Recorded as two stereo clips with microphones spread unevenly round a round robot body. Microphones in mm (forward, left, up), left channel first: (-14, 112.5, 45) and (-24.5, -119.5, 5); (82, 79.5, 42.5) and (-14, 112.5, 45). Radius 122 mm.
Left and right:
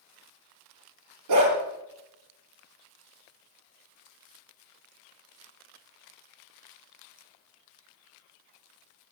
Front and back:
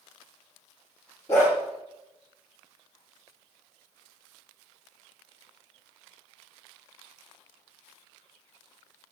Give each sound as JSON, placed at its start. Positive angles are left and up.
{"t": 1.3, "sound": "a dog barking", "azimuth_deg": -95, "distance_m": 7.0}